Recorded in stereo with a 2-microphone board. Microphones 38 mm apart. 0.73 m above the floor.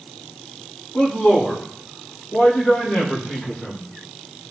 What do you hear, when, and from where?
0.9 s a man speaking: 55° left (ahead or behind), 3 m; by 3.8 s 35° left (ahead or behind), 3.5 m